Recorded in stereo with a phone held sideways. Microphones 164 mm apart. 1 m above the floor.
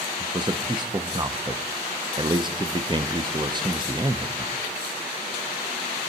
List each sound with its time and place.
0.2 s a man speaking: 25° right (ahead or behind), 0.6 m